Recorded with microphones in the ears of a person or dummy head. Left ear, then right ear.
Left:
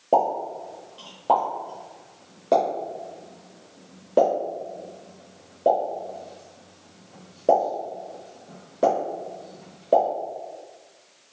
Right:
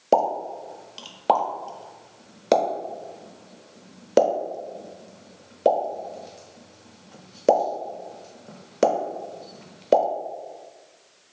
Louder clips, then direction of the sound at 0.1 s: Even; 60° right (ahead or behind).